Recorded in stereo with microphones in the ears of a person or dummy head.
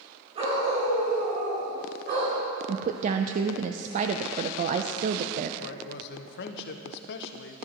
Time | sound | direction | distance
0.3 | a dog barking | 35° right (ahead or behind) | 4.5 m
2.7 | a woman speaking | 40° right (ahead or behind) | 0.5 m
5.6 | a man speaking | 55° left (ahead or behind) | 0.9 m